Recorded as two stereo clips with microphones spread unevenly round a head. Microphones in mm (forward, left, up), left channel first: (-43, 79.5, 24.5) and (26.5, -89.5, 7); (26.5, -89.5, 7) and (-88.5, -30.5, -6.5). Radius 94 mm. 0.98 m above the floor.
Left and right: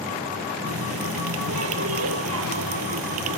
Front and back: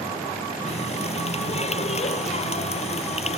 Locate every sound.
0.7 s a running tap: 65° right